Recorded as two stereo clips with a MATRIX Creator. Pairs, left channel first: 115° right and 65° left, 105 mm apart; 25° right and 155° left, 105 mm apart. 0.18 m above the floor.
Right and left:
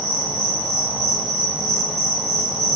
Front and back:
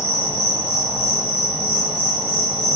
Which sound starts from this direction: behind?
An insect, at 0.0 s.